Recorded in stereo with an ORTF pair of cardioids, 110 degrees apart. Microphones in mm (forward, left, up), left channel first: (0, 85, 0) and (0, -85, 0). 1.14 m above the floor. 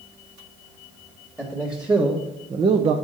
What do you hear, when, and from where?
1.4 s a man speaking: 5° right, 1.5 m; by 3.0 s 50° right, 0.6 m